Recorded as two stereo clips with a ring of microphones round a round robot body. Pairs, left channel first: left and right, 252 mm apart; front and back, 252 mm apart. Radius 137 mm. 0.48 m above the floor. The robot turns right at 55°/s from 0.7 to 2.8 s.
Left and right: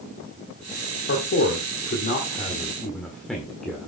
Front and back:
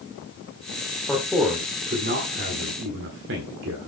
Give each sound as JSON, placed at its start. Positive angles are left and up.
{"t": 1.1, "sound": "a man speaking", "azimuth_deg": 85, "distance_m": 1.6}